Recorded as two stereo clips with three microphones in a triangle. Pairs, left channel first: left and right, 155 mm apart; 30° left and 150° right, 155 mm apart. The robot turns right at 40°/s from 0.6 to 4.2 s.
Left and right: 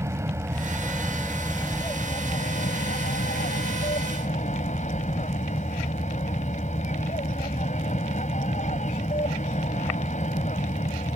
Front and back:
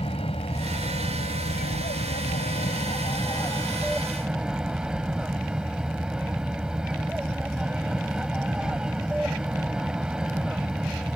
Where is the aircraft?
20° right; by 11.2 s 125° left.